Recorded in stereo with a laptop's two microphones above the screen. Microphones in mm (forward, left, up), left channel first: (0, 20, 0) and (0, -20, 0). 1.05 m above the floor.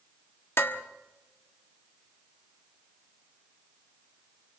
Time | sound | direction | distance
0.6 | dishes clattering | 75° left (ahead or behind) | 1.3 m